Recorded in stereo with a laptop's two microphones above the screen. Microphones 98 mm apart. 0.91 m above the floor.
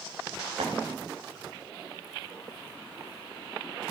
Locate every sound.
0.6 s tapping: 90° right, 3.5 m